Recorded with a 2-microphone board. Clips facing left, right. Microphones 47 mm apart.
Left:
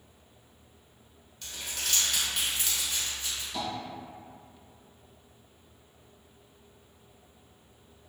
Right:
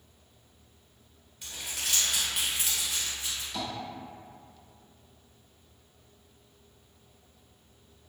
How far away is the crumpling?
About 1.7 m.